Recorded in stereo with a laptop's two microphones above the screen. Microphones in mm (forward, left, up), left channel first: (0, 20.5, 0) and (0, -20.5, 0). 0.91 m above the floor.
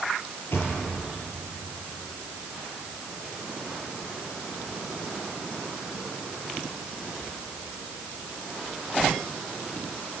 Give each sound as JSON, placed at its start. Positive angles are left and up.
{"t": 0.5, "sound": "a thud", "side_deg": 75, "distance_m": 7.5}